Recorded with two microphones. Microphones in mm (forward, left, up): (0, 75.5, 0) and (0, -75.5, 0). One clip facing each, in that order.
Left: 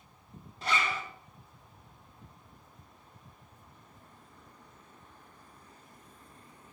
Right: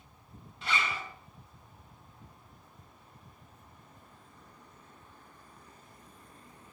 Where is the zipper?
40° left (ahead or behind), 2.5 m.